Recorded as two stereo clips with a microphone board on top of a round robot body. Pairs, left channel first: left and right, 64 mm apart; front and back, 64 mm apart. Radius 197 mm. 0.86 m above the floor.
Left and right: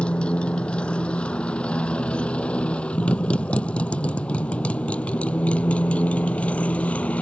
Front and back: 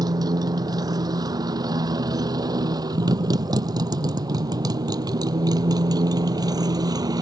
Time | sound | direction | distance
0.0 | a motorcycle | 165° left | ?